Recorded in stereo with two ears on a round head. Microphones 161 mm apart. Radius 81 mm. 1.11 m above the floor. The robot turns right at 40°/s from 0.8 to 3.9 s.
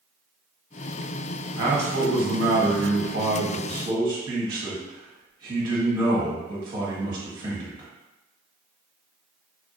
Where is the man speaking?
120° right, 1.2 m; by 7.9 s 30° right, 1.2 m.